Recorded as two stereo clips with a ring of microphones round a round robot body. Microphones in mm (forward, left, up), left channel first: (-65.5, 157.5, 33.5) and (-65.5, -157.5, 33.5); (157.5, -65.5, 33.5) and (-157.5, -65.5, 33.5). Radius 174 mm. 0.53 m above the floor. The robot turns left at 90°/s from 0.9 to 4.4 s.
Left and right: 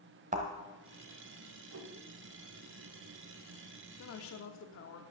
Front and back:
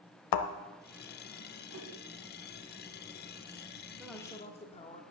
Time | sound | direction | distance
0.3 | a thud | 20° right | 0.9 m
1.7 | a whoosh | 135° right | 1.5 m
4.0 | a woman speaking | 100° left | 1.2 m